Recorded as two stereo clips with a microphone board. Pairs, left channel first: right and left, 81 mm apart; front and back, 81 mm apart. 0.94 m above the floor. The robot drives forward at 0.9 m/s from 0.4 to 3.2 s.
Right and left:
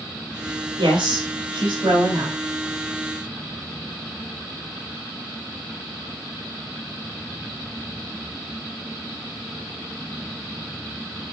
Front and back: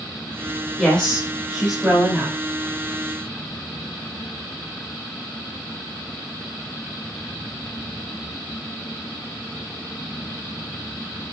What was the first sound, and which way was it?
A woman speaking, 90° left.